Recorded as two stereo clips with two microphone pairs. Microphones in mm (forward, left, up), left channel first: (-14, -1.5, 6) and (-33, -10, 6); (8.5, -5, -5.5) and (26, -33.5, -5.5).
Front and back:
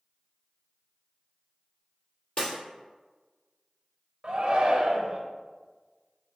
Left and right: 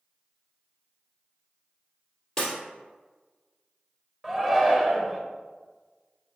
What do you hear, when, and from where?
2.4 s breaking glass: 50° left, 1.8 m
4.2 s a shout: 130° right, 0.8 m